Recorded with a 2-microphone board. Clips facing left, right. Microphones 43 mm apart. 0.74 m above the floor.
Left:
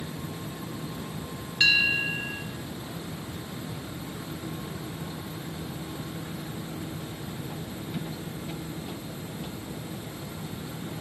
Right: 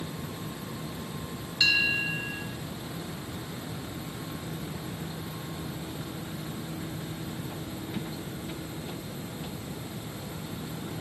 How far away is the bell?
About 3.5 m.